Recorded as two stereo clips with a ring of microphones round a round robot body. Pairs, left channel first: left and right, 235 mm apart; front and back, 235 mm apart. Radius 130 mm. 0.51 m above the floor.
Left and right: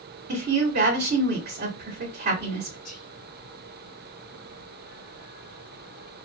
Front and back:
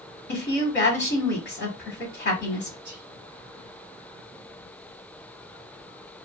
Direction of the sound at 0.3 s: 30° right.